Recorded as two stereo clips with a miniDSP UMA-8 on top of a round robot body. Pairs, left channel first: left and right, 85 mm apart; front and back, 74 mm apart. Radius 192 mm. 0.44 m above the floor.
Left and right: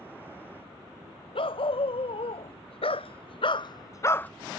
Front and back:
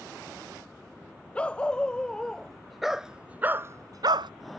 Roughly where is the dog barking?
Left.